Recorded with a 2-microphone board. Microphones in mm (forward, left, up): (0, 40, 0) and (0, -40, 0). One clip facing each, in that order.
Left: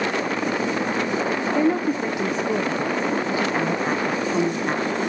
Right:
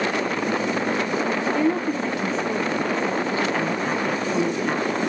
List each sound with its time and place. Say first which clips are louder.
1.6 s a woman speaking: left 4 dB; 15° left (ahead or behind), 0.6 m